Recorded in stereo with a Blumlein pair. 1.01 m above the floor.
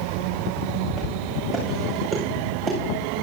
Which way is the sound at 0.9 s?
20° left.